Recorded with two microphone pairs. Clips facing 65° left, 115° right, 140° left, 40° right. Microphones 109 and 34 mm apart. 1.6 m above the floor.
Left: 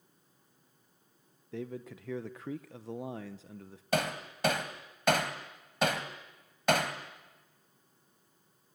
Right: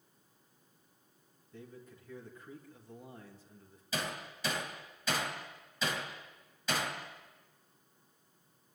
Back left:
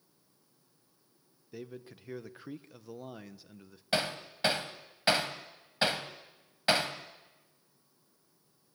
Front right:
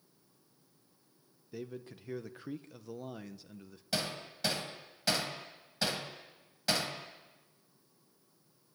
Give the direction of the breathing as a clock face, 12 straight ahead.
I don't hear breathing.